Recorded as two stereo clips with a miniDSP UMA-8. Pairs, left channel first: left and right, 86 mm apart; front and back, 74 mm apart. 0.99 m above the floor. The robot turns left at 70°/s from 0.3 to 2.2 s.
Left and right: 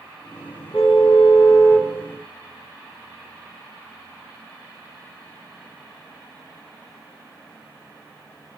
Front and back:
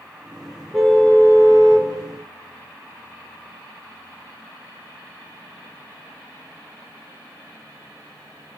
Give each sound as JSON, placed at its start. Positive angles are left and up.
{"t": 0.7, "sound": "a car horn", "azimuth_deg": 100, "distance_m": 5.5}